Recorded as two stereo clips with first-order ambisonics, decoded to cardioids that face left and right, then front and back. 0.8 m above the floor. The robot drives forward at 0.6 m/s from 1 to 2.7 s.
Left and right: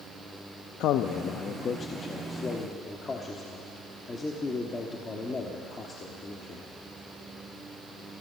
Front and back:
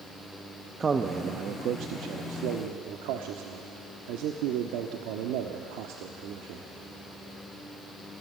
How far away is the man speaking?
About 0.6 m.